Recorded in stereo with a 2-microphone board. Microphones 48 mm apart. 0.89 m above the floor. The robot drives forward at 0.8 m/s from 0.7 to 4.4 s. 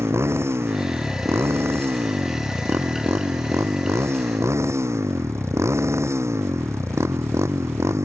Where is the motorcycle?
60° right (ahead or behind); by 8.1 s 70° right (ahead or behind).